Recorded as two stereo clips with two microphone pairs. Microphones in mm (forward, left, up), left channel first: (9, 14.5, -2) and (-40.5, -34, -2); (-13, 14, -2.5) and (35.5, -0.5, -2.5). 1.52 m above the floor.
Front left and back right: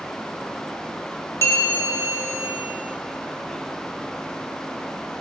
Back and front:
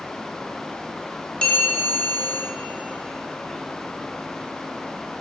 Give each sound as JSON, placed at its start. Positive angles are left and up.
{"t": 1.4, "sound": "a bell", "azimuth_deg": 95, "distance_m": 2.5}